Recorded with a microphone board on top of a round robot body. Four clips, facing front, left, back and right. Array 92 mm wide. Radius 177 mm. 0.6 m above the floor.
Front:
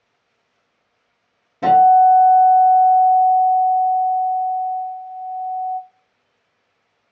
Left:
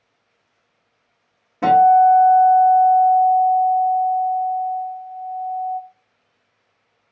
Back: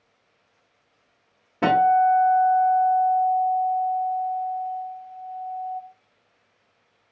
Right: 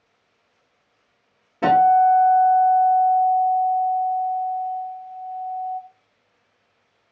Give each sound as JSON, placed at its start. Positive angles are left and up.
{"t": 1.6, "sound": "a guitar", "azimuth_deg": 160, "distance_m": 1.5}